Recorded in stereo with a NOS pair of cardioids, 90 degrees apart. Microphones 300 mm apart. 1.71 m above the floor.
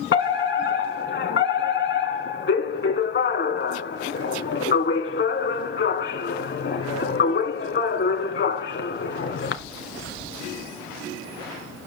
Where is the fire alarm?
40° left, 2.5 m.